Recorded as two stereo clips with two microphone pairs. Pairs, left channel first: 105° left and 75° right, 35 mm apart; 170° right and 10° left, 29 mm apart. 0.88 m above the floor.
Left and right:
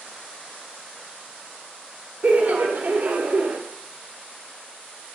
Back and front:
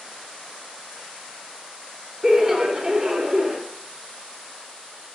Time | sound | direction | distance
2.2 | laughter | 55° right | 0.5 m